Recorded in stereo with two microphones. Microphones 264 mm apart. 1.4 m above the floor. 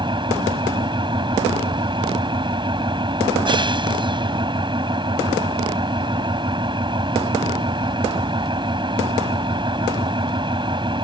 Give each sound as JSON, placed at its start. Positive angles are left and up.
{"t": 0.0, "sound": "an engine running", "side_deg": -20}